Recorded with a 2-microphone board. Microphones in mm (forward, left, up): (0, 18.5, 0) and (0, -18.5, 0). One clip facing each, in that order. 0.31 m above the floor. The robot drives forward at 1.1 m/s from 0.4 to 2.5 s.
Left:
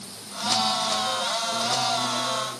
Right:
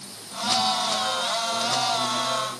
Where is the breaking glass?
I don't hear breaking glass.